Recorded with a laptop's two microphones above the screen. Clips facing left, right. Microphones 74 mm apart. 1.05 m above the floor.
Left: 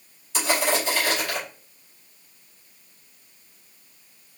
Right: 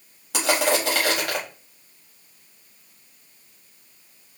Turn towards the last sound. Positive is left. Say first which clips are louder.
# right 2 dB
turn(degrees=-85)